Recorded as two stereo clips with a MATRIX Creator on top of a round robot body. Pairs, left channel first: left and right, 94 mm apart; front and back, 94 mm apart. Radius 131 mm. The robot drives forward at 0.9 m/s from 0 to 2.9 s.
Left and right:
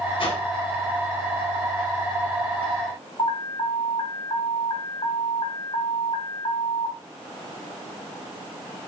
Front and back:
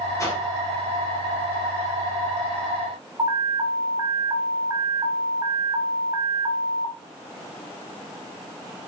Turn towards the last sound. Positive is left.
turn(degrees=130)